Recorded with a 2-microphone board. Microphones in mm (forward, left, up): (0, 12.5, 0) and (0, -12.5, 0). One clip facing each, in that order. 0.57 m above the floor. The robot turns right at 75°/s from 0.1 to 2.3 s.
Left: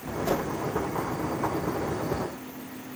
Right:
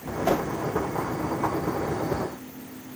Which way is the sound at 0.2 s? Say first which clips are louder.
Right 4 dB; 45° right (ahead or behind).